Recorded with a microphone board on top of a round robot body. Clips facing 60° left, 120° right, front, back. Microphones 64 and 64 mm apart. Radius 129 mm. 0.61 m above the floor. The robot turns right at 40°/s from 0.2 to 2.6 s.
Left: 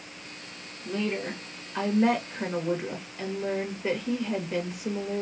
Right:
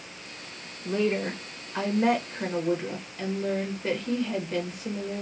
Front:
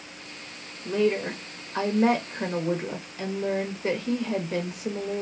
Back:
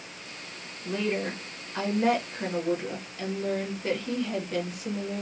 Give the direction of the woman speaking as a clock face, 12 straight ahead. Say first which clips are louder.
Right 4 dB, front 5 dB; 3 o'clock.